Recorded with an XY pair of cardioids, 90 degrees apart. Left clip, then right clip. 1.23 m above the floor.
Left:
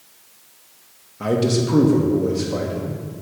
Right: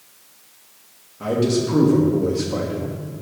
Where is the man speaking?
40° left, 1.7 m; by 3.0 s 10° right, 2.5 m.